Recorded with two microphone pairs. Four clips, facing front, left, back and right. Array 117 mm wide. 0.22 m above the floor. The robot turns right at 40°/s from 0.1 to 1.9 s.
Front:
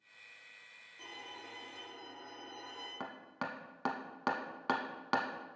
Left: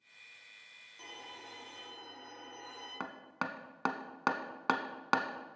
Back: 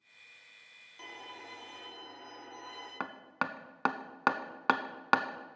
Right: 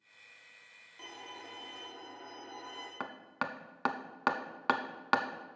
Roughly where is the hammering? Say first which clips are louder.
Right 1 dB, back 6 dB; behind.